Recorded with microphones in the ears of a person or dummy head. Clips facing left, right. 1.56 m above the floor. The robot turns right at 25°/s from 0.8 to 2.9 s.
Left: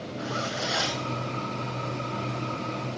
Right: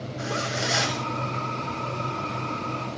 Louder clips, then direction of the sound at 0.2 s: Right 2 dB; 35° right (ahead or behind).